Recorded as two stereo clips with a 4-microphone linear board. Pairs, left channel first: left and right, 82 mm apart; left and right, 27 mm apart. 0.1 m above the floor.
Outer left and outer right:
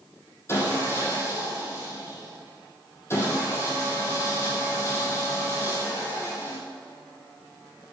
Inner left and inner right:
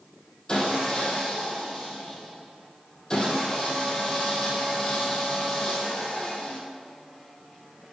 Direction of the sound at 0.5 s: 30° left (ahead or behind).